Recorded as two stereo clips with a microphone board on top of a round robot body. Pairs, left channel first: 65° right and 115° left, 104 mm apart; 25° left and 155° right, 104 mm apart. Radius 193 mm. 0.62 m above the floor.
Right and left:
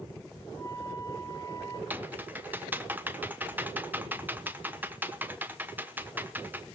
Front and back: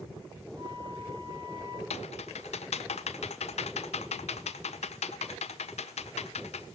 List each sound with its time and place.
0.6 s a flute: 120° right, 3.5 m
1.9 s typing on a keyboard: 40° left, 0.9 m